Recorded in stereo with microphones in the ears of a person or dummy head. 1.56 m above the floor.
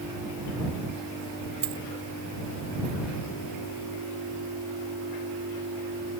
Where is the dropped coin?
50° right (ahead or behind).